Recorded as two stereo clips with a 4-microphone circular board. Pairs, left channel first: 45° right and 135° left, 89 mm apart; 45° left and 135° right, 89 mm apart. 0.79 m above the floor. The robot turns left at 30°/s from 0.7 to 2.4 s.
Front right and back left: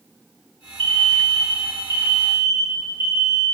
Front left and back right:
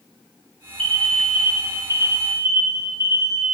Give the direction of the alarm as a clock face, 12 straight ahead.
8 o'clock.